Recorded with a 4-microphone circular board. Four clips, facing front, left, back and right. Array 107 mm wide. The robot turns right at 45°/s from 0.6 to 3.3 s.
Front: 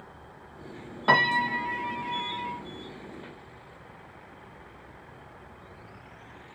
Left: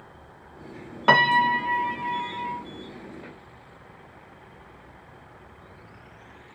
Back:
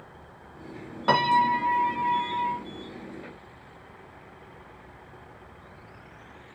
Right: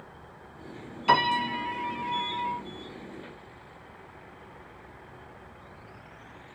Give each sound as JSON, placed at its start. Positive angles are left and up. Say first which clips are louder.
{"t": 1.1, "sound": "a piano", "louder": "left 5 dB, back 3 dB", "azimuth_deg": 95, "distance_m": 1.5}